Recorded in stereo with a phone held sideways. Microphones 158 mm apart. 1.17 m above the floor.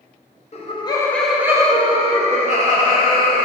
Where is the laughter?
45° left (ahead or behind), 0.7 m; by 3.4 s 60° right (ahead or behind), 1.6 m.